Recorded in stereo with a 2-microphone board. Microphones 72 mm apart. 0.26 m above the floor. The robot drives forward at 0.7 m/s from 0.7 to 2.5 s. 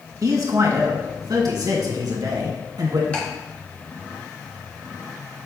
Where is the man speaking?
50° right (ahead or behind), 2 m; by 3.0 s 60° right (ahead or behind), 2.0 m.